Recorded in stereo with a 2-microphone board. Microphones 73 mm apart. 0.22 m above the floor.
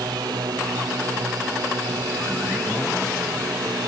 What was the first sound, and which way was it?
A drone, 75° right (ahead or behind).